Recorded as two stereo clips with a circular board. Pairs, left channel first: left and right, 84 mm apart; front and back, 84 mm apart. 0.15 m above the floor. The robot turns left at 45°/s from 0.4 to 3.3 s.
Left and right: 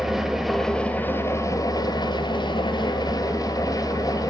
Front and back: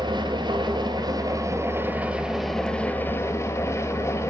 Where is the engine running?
175° right, 1.6 m; by 4.3 s 55° left, 1.6 m.